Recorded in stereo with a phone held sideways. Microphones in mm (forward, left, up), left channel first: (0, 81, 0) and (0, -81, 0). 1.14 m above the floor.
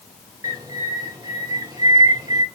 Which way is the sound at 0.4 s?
25° right (ahead or behind).